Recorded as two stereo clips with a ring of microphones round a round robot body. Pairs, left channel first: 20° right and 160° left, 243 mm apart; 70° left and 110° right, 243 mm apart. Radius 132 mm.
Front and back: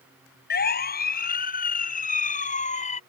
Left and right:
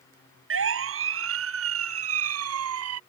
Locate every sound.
0.5 s a siren: 75° right; by 3.0 s 85° right